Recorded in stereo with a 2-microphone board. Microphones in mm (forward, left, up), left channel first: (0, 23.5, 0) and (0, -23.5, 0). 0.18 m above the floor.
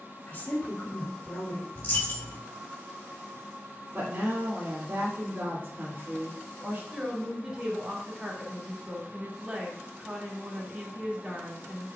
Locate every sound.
0.3 s a woman speaking: 40° left (ahead or behind), 1.9 m
1.8 s a dropped coin: 50° left (ahead or behind), 1.8 m
3.9 s a woman speaking: 45° right (ahead or behind), 2.5 m
6.9 s a woman speaking: 20° right (ahead or behind), 1.4 m